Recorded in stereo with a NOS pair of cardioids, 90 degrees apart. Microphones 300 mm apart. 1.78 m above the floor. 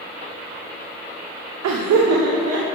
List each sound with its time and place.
1.6 s laughter: 70° right, 1.2 m; by 2.6 s 55° right, 2.5 m